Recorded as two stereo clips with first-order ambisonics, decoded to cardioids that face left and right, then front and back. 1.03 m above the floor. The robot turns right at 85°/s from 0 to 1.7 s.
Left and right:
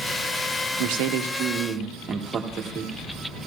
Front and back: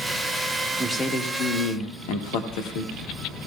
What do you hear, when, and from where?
0.8 s a man speaking: 95° right, 1.0 m; by 3.0 s 20° right, 1.0 m